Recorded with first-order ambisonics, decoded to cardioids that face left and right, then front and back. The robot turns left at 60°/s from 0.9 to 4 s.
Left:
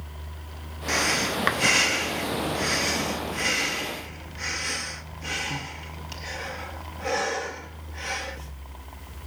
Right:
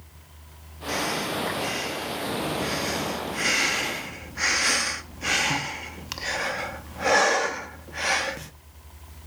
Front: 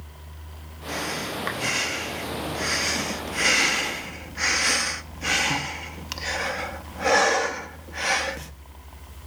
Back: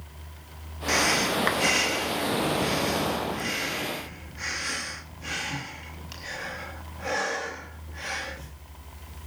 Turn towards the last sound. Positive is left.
turn(degrees=-45)